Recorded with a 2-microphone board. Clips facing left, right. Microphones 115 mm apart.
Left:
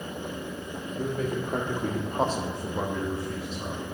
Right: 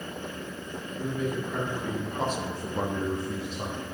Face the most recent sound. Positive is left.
turn(degrees=-40)  # may be behind; listen again after turning